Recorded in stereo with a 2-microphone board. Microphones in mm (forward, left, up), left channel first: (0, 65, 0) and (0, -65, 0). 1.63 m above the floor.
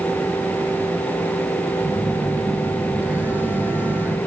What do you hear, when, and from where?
1.8 s a phone buzzing: 15° right (ahead or behind), 4 m